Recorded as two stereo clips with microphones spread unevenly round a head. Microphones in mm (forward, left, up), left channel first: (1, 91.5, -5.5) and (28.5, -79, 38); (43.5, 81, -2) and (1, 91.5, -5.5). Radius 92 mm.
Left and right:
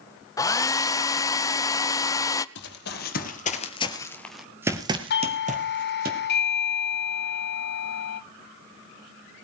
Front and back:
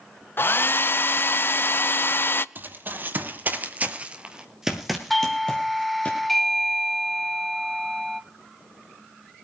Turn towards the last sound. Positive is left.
turn(degrees=75)